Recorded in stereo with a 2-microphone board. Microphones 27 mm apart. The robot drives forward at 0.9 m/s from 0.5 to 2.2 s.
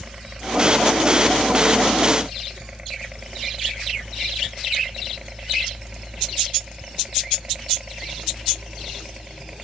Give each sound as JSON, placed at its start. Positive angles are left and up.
{"t": 0.0, "sound": "a helicopter", "side_deg": -25}